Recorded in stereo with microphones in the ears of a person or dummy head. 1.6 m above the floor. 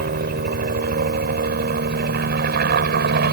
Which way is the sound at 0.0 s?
50° right (ahead or behind).